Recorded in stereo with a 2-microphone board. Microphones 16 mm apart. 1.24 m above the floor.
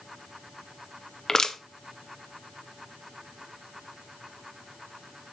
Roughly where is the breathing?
I don't hear breathing.